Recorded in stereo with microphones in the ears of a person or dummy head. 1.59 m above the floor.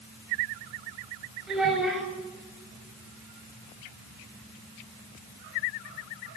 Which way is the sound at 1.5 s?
10° right (ahead or behind).